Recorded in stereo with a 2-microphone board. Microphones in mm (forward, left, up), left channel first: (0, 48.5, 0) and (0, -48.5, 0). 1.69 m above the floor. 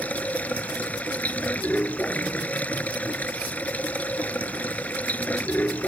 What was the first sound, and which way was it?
Running water, 15° left (ahead or behind).